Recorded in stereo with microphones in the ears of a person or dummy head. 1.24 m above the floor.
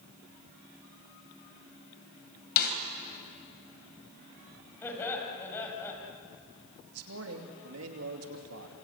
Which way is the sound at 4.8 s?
10° left (ahead or behind).